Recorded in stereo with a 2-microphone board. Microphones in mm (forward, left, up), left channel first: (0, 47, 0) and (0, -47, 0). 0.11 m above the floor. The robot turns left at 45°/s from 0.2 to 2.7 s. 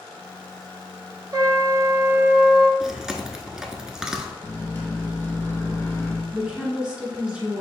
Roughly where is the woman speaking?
Centre.